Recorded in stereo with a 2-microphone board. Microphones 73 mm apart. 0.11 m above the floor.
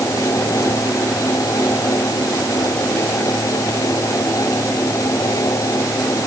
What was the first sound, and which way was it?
Only background noise.